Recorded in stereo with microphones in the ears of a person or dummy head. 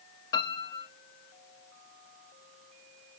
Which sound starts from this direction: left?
A piano, at 0.3 s.